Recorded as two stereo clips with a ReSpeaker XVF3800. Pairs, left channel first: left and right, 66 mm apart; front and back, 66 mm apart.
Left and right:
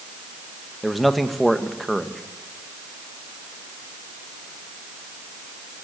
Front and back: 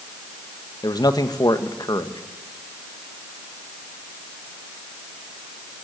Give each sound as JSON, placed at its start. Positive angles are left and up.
{"t": 0.8, "sound": "a man speaking", "azimuth_deg": 0, "distance_m": 1.7}